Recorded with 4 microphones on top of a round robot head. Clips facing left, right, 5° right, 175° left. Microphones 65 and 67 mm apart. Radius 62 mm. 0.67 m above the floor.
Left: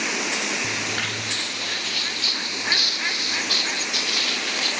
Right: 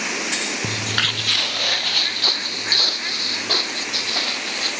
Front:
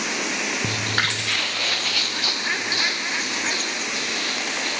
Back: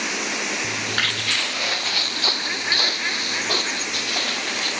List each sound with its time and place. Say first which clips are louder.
0.6 s footsteps: right 2 dB, front 2 dB; 55° right, 1.0 m; by 4.7 s 145° right, 3.5 m